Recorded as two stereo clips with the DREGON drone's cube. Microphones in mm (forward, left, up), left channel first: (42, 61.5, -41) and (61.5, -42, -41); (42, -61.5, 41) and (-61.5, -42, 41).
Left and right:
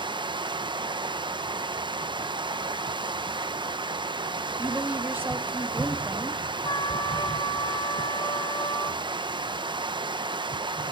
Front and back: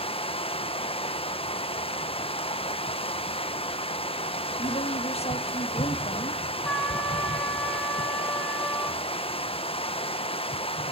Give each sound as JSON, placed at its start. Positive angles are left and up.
{"t": 0.0, "sound": "running water", "azimuth_deg": -40, "distance_m": 0.8}
{"t": 4.6, "sound": "a woman speaking", "azimuth_deg": -10, "distance_m": 1.3}
{"t": 6.7, "sound": "a trumpet", "azimuth_deg": 65, "distance_m": 1.8}